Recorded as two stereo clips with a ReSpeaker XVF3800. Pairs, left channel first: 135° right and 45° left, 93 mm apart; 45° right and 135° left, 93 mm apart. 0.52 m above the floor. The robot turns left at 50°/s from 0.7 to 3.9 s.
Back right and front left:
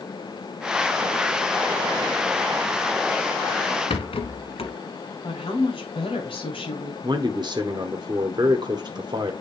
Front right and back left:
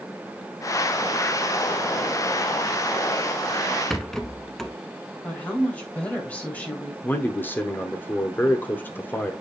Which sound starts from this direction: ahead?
A man speaking, at 7.0 s.